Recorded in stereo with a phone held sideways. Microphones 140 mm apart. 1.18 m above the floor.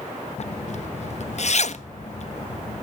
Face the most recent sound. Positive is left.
turn(degrees=55)  # may be behind; listen again after turning